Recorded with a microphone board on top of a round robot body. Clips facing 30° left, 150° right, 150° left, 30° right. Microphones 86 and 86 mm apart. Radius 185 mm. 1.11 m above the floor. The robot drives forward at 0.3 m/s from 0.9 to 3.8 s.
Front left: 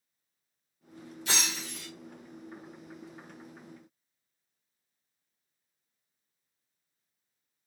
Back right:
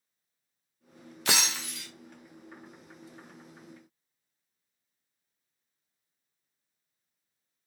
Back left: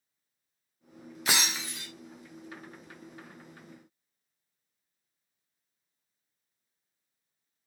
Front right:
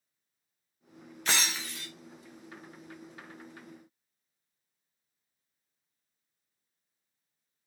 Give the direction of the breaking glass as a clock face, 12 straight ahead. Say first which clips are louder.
Back right 3 dB, back left 1 dB; 4 o'clock.